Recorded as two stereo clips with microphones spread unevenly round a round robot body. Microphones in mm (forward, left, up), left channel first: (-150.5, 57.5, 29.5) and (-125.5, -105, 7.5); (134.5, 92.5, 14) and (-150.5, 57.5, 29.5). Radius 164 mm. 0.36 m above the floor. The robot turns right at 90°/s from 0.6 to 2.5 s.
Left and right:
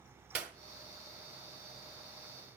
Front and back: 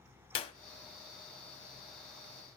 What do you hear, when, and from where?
0.3 s a clap: 20° right, 1.1 m